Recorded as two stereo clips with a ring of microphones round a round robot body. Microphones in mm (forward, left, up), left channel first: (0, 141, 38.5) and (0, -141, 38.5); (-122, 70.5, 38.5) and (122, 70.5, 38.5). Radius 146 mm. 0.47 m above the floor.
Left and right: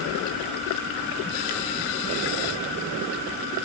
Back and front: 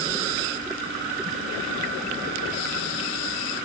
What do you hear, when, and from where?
Only background noise.